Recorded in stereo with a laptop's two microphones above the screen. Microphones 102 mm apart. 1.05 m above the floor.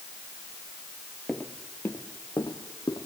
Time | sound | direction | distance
1.3 | footsteps | 10° left (ahead or behind) | 1.2 m